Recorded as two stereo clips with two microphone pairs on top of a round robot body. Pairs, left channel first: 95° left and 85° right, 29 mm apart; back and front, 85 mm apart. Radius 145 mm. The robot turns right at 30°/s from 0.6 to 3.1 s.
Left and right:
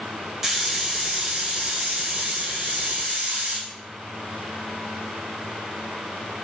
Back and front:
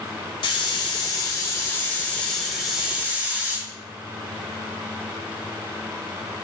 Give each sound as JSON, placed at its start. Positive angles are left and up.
{"t": 0.4, "sound": "a hiss", "azimuth_deg": -155, "distance_m": 0.6}